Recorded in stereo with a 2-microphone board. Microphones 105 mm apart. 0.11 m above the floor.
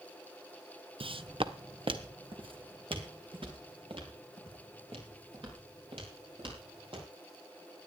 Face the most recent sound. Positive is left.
turn(degrees=-60)  # may be behind; listen again after turning